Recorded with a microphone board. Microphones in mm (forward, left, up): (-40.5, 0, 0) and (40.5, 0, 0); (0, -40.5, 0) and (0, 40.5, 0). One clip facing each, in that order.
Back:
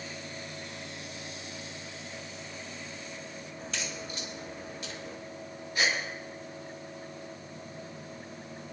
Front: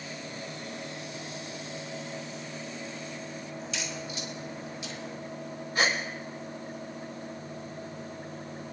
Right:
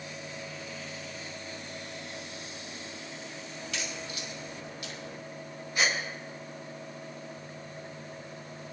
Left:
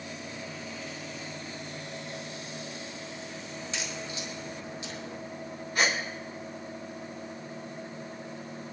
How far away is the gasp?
About 3.5 m.